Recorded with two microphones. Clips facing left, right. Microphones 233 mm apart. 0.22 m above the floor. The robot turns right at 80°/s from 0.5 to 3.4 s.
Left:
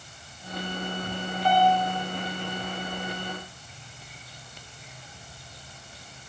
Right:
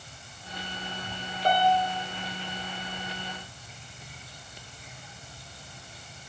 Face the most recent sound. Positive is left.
turn(degrees=15)